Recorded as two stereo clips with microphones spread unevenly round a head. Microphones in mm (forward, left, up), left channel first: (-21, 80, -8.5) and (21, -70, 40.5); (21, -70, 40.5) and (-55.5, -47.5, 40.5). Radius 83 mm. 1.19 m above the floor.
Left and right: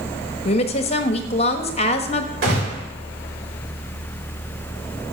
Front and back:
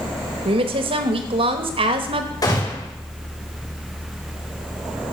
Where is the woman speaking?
160° left, 1.3 m.